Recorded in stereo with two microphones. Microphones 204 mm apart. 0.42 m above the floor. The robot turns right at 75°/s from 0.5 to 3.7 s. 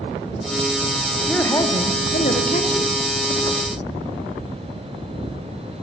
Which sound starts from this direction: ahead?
A man speaking, at 1.2 s.